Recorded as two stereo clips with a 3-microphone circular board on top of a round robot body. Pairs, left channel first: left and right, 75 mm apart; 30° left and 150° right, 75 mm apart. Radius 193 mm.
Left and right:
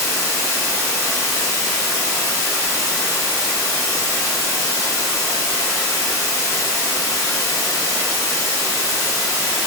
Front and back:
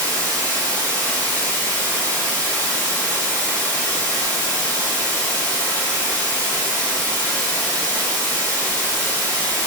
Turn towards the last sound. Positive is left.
turn(degrees=35)